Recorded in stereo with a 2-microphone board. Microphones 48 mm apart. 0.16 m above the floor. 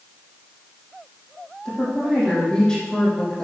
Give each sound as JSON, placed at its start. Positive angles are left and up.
{"t": 1.6, "sound": "a woman speaking", "side_deg": 20, "distance_m": 6.0}